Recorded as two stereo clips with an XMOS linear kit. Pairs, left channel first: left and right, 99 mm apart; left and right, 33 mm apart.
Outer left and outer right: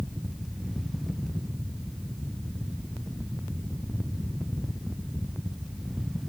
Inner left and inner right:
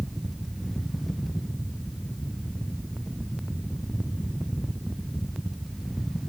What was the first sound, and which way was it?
Only background noise.